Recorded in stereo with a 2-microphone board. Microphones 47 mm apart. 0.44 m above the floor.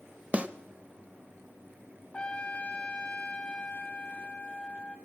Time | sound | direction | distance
0.3 | a snare drum | 25° right (ahead or behind) | 0.6 m
2.1 | a trumpet | 20° left (ahead or behind) | 1.1 m